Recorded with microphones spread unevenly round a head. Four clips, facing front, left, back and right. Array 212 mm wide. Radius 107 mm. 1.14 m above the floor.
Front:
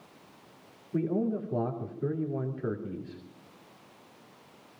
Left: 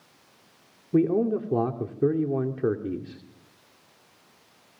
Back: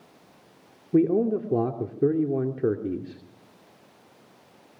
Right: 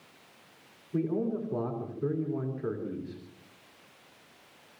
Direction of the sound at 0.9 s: 145° left.